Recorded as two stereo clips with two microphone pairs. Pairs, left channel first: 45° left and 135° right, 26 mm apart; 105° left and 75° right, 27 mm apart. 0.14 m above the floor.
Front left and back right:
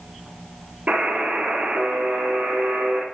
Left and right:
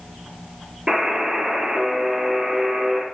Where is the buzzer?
140° right, 1.8 m.